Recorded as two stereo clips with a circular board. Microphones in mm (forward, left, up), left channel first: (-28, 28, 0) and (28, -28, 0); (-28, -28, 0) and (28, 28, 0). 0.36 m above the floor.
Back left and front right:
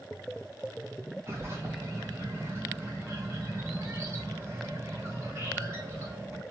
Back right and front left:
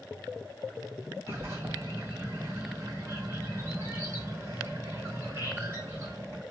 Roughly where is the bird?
Ahead.